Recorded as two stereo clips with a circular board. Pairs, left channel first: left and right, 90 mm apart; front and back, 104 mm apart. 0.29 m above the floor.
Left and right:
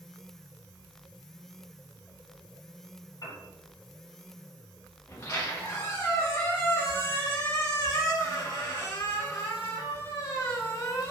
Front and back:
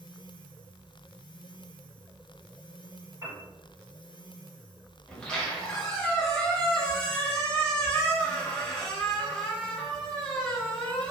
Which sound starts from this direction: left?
A squeak, at 5.1 s.